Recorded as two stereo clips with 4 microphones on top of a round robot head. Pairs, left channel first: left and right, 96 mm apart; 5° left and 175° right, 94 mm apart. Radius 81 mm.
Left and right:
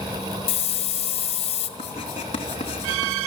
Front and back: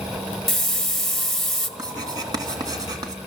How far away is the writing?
About 3 m.